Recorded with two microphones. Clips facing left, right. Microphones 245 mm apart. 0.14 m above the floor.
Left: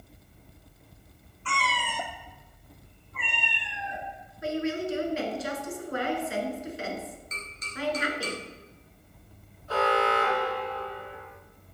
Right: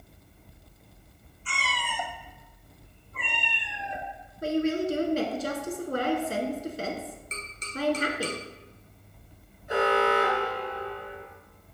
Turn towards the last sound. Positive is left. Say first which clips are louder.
# right 2 dB
turn(degrees=-20)  # may be behind; listen again after turning